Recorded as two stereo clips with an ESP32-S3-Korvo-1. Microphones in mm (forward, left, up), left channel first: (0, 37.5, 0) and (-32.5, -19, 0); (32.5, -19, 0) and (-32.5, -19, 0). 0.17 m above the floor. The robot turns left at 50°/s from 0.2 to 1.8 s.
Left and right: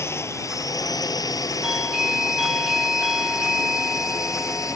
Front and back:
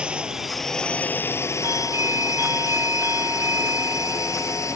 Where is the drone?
105° left; by 4.8 s 35° left.